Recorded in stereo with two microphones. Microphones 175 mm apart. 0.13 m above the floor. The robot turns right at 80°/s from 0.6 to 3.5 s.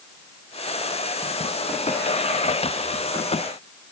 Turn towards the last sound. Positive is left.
No sound to turn to.